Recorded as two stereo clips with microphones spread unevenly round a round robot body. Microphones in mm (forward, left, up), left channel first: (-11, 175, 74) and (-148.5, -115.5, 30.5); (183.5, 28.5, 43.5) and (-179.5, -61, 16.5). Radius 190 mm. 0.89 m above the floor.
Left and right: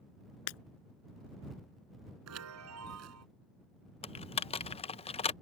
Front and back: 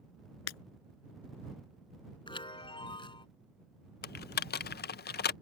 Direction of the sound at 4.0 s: 5° left.